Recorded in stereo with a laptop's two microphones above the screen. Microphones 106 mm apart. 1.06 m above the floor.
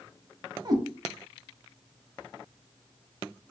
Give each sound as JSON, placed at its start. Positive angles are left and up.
{"t": 0.7, "sound": "a cat meowing", "side_deg": -40, "distance_m": 0.6}